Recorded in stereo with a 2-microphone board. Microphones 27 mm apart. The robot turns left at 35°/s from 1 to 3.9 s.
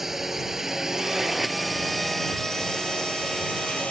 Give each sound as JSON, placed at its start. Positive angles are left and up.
{"t": 0.0, "sound": "a drone", "side_deg": -15}